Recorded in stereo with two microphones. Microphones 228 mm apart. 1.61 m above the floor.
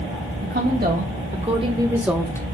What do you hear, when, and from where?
0.4 s a woman speaking: 50° right (ahead or behind), 2 m; by 2.4 s 15° left (ahead or behind), 0.9 m